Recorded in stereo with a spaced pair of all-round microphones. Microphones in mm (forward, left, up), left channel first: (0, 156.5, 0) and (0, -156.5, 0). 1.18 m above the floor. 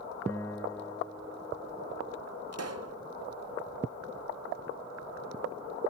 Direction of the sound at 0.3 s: 10° left (ahead or behind).